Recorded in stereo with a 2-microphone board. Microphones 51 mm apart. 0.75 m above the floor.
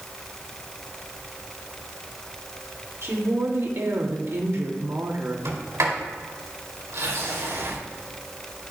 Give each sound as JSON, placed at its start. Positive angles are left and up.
{"t": 3.0, "sound": "a woman speaking", "side_deg": -60, "distance_m": 1.7}
{"t": 5.5, "sound": "a sliding door", "side_deg": -80, "distance_m": 2.5}